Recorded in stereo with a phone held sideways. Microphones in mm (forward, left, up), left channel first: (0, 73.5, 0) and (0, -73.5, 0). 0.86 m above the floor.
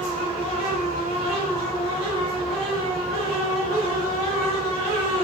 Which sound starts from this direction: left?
A fan, at 0.0 s.